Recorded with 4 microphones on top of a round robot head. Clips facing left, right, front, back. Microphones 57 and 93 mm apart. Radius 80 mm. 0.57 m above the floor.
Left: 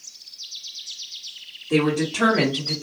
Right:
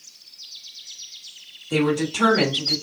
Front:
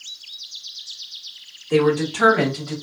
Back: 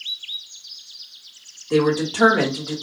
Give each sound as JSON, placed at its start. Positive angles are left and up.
{"t": 1.7, "sound": "a woman speaking", "azimuth_deg": 110, "distance_m": 1.8}